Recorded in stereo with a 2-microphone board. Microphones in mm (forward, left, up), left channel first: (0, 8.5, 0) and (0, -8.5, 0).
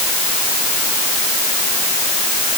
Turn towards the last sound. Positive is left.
No sound to turn to.